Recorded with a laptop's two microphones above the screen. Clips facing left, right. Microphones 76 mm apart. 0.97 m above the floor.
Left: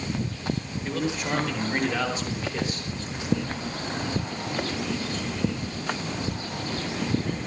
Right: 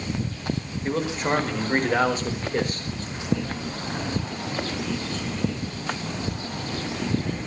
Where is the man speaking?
35° right (ahead or behind), 4.5 m; by 2.9 s 50° right (ahead or behind), 4 m.